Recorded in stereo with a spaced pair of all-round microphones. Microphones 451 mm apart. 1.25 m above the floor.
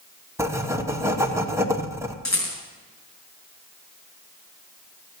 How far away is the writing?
About 1.1 m.